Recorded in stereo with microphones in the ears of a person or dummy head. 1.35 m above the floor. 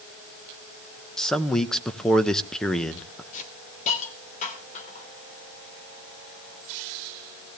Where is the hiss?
45° left (ahead or behind), 2.5 m.